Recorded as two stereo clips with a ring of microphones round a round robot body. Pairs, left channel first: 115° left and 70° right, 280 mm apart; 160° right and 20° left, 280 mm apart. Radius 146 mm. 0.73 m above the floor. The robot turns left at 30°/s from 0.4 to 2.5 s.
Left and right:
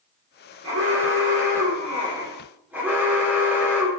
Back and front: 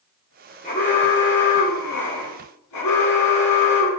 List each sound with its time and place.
0.6 s an alarm: 95° right, 3.5 m; by 3.9 s 150° right, 3.5 m